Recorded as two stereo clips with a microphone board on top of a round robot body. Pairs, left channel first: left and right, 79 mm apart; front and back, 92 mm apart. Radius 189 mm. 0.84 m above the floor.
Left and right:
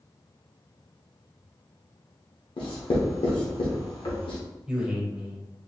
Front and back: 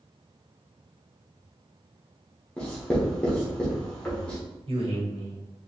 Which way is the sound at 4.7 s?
170° right.